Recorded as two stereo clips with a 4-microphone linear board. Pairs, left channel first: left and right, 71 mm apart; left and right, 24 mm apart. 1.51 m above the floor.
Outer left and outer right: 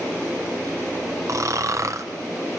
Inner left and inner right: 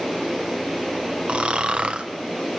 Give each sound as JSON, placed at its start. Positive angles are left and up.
{"t": 1.3, "sound": "snoring", "side_deg": -50, "distance_m": 0.6}